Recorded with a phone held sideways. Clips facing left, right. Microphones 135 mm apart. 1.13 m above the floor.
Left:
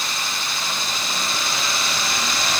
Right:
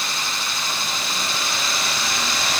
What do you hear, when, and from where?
Only background noise.